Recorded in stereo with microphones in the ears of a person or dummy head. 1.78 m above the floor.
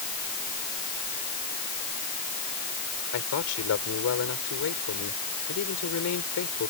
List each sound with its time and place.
3.1 s a man speaking: 85° left